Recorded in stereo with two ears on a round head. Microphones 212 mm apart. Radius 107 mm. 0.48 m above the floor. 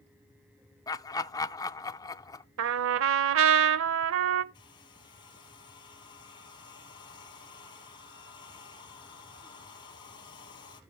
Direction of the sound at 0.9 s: 15° left (ahead or behind).